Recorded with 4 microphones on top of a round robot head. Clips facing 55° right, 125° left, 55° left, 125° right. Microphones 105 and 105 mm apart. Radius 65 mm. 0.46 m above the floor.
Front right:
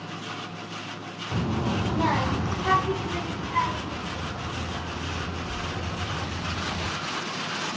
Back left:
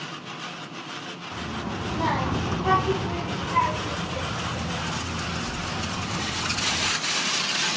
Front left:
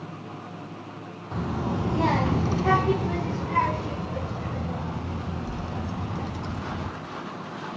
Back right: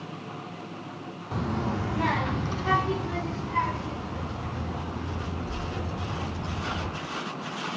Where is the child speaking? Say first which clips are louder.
Front right 5 dB, front left 1 dB; 40° right, 0.7 m; by 6.9 s 90° left, 3 m.